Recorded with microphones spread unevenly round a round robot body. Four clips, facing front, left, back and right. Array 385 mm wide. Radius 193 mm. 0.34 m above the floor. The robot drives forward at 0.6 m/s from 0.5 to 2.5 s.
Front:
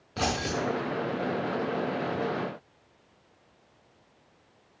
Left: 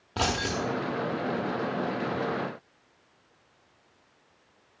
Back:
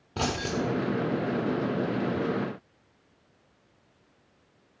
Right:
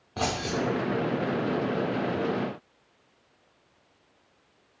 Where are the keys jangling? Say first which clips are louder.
Even, even; 150° left, 0.8 m; by 0.6 s 155° left, 0.8 m.